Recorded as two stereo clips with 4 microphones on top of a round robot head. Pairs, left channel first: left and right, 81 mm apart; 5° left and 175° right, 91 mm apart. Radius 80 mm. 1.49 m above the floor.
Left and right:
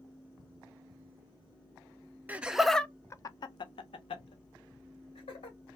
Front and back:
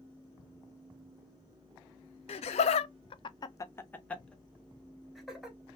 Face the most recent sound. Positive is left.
turn(degrees=100)